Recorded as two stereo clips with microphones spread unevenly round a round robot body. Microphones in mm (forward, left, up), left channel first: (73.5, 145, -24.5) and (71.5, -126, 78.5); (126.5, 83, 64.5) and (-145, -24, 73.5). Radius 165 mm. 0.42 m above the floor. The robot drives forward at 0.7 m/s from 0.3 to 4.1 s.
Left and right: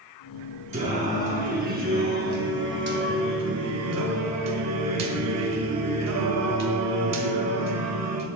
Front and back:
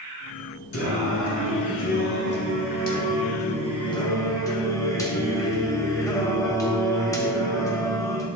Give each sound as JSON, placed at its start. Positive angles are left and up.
{"t": 0.7, "sound": "singing", "azimuth_deg": -20, "distance_m": 3.5}